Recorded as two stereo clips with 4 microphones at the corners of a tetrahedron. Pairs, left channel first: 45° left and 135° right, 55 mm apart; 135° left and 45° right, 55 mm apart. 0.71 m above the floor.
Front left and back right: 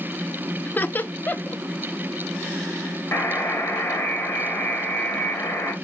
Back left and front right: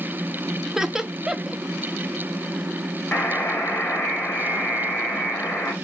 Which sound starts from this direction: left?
A buzzer, at 3.1 s.